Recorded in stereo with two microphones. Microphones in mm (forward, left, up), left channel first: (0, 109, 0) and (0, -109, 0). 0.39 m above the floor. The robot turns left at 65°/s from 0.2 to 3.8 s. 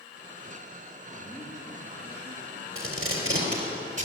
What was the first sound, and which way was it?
A man speaking, 15° left.